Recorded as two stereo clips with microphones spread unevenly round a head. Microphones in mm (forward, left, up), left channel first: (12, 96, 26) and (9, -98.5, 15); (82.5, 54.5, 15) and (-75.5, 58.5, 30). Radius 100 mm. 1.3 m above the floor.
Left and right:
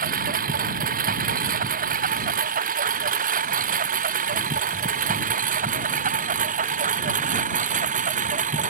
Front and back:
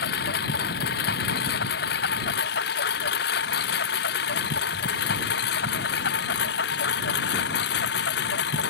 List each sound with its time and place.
0.0 s a lawn mower: 45° right; by 8.7 s 40° right